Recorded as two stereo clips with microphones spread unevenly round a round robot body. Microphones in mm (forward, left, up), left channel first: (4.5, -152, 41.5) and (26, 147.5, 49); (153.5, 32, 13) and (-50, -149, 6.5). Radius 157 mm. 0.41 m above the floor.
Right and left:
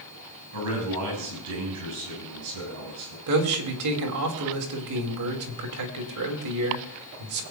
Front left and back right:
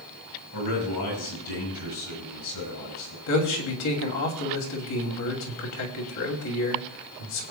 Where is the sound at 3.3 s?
65° left, 2.5 m.